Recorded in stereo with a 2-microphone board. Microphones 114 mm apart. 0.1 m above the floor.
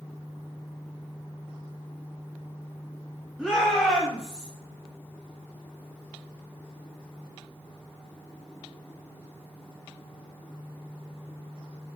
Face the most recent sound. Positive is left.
turn(degrees=-5)  # may be behind; listen again after turning